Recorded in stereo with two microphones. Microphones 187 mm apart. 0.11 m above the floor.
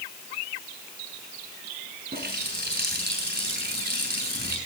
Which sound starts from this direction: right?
A running tap, at 2.1 s.